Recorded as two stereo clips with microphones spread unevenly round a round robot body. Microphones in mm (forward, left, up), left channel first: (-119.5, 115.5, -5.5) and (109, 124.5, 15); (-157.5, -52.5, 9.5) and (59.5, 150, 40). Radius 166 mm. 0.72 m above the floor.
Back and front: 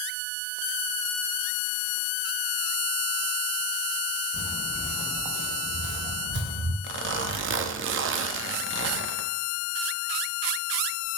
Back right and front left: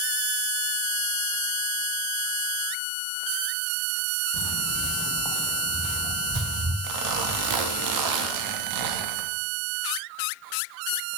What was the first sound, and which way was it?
Footsteps, 120° right.